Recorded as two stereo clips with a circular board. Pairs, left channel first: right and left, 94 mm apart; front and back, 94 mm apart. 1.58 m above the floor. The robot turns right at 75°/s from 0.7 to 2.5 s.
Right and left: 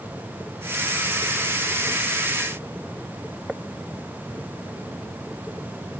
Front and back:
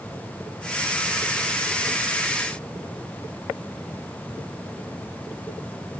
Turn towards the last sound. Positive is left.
No sound to turn to.